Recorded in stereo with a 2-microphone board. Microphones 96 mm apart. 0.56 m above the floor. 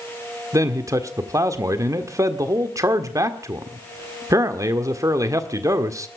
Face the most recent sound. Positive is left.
turn(degrees=-35)  # may be behind; listen again after turning